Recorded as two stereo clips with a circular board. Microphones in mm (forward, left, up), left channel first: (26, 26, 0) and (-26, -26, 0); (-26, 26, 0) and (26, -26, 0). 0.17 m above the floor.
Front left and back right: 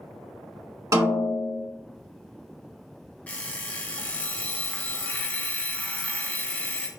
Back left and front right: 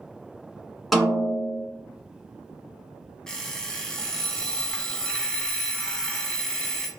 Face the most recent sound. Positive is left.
turn(degrees=70)